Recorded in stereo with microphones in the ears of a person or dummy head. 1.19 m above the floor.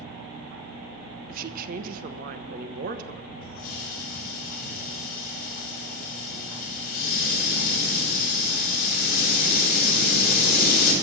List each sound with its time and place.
1.3 s a woman speaking: 40° right (ahead or behind), 1.1 m
3.4 s a hiss: 50° left (ahead or behind), 4.5 m